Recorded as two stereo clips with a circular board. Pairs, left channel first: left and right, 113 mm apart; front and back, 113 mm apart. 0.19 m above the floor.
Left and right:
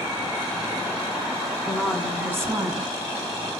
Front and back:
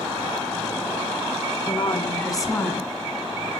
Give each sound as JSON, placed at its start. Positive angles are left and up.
{"t": 1.7, "sound": "a woman speaking", "azimuth_deg": 10, "distance_m": 1.5}